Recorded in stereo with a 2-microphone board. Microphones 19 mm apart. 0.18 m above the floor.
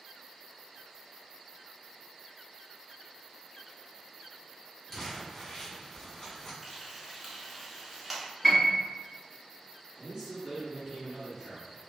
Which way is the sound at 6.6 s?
5° right (ahead or behind).